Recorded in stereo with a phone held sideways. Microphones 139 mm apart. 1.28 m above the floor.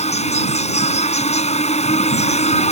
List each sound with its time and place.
0.0 s an insect: 55° left (ahead or behind)